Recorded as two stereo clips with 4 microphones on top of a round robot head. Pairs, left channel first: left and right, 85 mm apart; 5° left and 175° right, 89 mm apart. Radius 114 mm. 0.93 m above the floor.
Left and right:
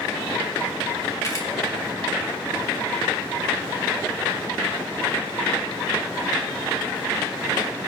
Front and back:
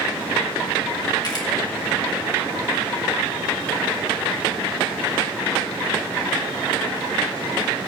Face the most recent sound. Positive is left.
turn(degrees=40)